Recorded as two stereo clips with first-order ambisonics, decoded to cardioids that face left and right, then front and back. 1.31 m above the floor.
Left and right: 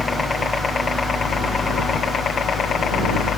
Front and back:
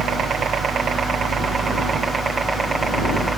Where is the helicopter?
160° left; by 3.4 s 105° left.